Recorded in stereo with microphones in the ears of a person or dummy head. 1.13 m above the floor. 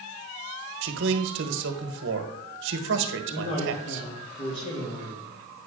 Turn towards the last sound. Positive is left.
turn(degrees=40)  # may be behind; listen again after turning